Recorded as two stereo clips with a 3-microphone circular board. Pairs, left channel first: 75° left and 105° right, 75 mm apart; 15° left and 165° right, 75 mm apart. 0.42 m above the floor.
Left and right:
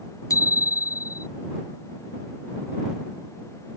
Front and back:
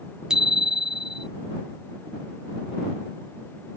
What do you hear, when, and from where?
0.3 s a bicycle bell: 115° left